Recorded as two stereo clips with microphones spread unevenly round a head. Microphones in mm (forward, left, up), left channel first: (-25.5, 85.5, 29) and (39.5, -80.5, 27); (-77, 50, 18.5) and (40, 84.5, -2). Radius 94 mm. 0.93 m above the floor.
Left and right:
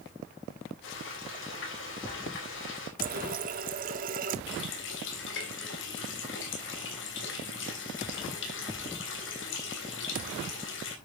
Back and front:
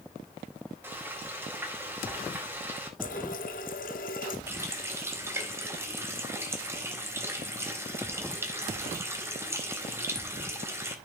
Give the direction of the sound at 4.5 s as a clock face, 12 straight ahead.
9 o'clock.